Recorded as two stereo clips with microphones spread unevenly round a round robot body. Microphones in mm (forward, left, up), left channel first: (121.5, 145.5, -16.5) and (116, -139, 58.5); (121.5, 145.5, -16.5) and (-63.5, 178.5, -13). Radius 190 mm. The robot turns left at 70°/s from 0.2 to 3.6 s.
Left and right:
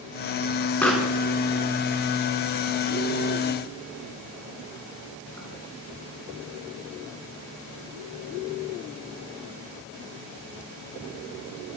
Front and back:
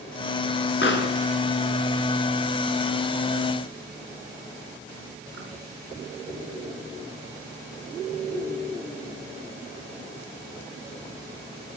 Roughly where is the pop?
Ahead.